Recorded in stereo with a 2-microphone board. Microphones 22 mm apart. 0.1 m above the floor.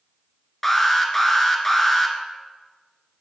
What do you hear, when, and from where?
0.6 s an alarm: 10° left (ahead or behind), 1.0 m